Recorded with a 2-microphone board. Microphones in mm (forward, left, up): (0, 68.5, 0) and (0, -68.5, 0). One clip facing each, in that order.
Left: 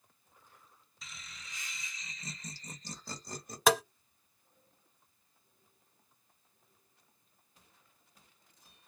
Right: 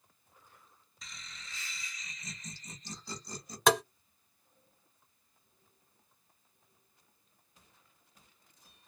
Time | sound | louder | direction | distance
1.0 | laughter | even | centre (ahead or behind) | 1.1 m
3.7 | tapping | even | centre (ahead or behind) | 0.5 m